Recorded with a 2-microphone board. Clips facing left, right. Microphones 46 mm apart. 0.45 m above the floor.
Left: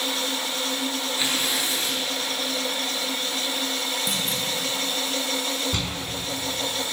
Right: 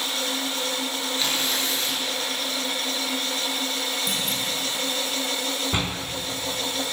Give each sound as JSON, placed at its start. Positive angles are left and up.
{"t": 1.2, "sound": "tearing paper", "side_deg": 15, "distance_m": 8.0}
{"t": 4.1, "sound": "a clunk", "side_deg": 0, "distance_m": 9.5}
{"t": 5.7, "sound": "a door slam", "side_deg": -25, "distance_m": 2.5}